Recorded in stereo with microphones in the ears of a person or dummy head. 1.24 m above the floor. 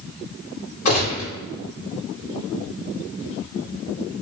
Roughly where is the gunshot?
Left.